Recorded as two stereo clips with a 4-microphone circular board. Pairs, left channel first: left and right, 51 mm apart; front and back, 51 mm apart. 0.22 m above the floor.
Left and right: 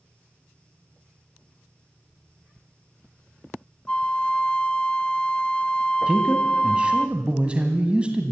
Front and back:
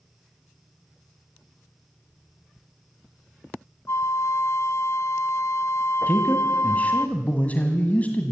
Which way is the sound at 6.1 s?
35° right.